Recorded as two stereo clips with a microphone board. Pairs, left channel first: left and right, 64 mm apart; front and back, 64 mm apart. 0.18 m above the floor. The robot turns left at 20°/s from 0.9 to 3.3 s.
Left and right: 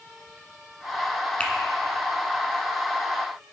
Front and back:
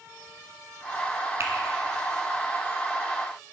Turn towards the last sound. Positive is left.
turn(degrees=120)